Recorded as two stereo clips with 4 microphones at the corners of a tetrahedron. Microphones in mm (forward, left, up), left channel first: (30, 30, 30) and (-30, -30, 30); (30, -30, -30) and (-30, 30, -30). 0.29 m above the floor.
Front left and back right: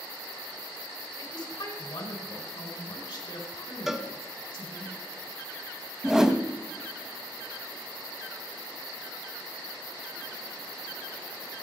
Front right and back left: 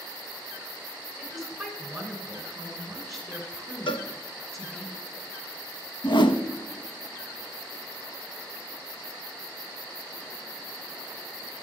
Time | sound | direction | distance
1.2 | a woman speaking | 45° left | 2.5 m
3.9 | a cowbell | 50° right | 0.6 m
6.0 | a whoosh | 50° right | 0.6 m